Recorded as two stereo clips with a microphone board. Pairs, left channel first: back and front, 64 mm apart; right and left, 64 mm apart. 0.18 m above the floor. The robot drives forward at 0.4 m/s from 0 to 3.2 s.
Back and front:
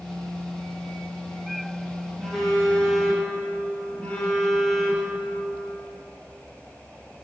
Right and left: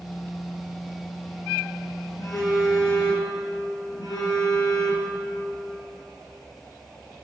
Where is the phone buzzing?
95° right, 3 m; by 5.1 s 105° right, 3 m.